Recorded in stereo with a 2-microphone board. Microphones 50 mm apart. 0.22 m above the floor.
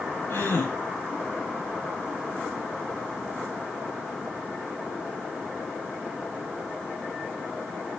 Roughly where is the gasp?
Left.